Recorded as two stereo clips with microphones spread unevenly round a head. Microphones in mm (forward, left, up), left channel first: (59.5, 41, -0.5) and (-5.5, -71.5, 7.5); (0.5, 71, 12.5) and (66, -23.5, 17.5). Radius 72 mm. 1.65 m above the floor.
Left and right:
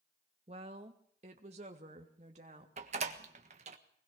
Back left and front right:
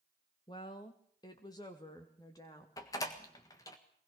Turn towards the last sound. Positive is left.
turn(degrees=-165)